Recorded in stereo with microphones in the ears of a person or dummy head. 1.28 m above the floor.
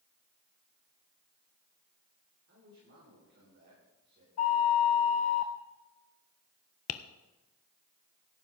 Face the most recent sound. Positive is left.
turn(degrees=45)  # may be behind; listen again after turning